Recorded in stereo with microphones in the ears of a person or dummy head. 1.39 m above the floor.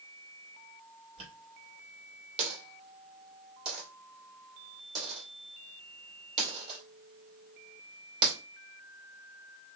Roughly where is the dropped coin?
Right.